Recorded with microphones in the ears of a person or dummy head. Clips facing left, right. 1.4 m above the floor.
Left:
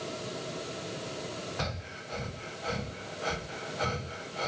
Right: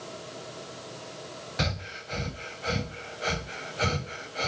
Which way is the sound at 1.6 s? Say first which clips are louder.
Right 4 dB; 25° right (ahead or behind).